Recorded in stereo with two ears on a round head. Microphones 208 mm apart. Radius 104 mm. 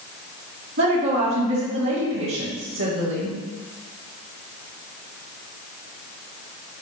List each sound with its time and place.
0.8 s a woman speaking: 60° right (ahead or behind), 2.5 m